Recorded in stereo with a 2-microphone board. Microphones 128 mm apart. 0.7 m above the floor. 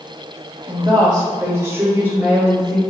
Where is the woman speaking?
40° right (ahead or behind), 1.2 m; by 2.8 s 10° right (ahead or behind), 2 m.